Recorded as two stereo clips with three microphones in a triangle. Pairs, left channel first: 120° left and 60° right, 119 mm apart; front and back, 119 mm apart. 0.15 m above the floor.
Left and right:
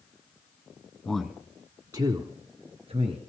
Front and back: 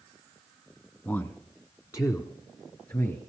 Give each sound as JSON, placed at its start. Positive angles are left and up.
{"t": 1.1, "sound": "a man speaking", "azimuth_deg": 50, "distance_m": 1.1}